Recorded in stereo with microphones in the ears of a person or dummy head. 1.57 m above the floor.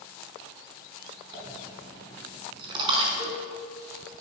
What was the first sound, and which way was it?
A dropped coin, 25° right (ahead or behind).